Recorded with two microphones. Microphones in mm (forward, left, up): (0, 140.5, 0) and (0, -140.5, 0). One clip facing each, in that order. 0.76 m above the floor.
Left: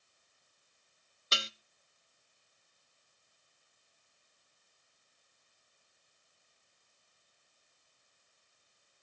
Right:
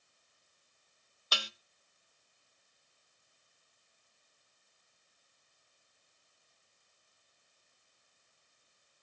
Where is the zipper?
No zipper in this recording.